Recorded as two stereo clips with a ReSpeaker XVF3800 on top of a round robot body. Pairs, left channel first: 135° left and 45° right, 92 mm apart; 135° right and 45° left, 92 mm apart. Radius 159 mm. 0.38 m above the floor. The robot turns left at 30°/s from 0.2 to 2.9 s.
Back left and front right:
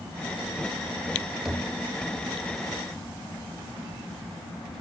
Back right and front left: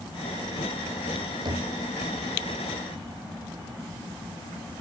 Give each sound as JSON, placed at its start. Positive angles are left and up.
{"t": 1.4, "sound": "knocking", "azimuth_deg": 40, "distance_m": 1.6}